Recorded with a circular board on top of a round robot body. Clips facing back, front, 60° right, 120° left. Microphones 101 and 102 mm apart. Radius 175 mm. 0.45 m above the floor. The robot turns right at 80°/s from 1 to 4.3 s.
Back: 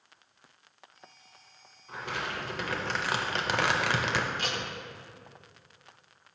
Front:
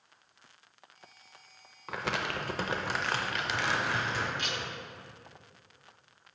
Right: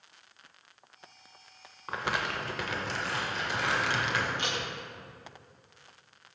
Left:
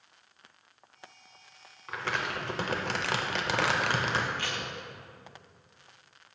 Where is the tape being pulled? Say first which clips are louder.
Back 3 dB, right 2 dB; 130° right, 0.8 m.